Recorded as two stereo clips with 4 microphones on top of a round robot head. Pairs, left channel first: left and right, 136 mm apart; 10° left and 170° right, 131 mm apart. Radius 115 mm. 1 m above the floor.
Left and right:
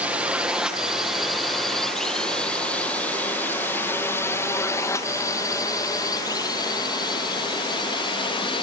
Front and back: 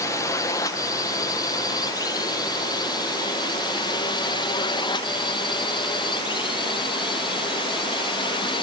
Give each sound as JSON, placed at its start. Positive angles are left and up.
{"t": 0.0, "sound": "a drone", "azimuth_deg": -25}